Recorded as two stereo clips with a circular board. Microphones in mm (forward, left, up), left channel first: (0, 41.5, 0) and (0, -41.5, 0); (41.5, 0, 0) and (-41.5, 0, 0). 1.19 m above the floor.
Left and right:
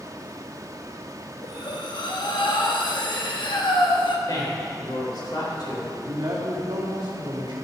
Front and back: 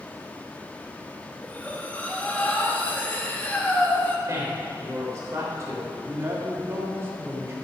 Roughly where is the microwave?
I don't hear a microwave.